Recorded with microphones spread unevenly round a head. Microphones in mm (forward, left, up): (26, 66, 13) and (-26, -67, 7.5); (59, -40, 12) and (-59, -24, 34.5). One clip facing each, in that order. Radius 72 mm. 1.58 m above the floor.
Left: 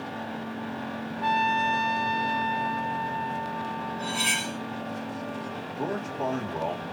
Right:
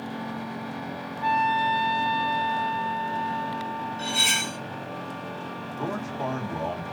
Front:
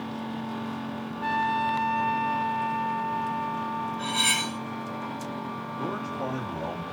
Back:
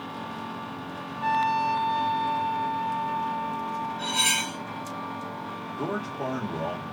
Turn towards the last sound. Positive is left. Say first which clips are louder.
# left 1 dB, back 2 dB
turn(degrees=170)